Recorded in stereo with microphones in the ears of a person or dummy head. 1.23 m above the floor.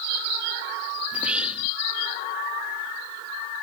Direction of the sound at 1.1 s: 5° right (ahead or behind).